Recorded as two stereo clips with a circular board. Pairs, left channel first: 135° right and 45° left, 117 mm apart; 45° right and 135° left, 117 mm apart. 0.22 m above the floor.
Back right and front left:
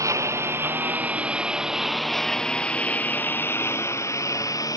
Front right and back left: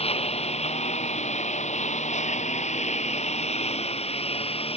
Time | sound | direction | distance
0.0 | a lawn mower | 15° right | ?